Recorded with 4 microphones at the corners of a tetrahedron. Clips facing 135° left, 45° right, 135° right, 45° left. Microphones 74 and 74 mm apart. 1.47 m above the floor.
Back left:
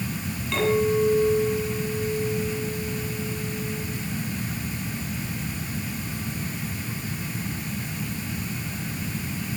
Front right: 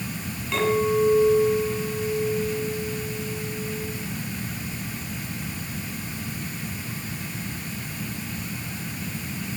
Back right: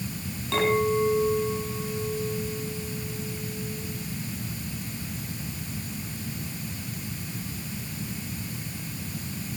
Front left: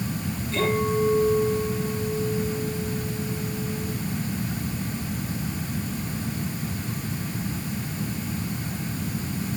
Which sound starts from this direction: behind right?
A clink, at 0.5 s.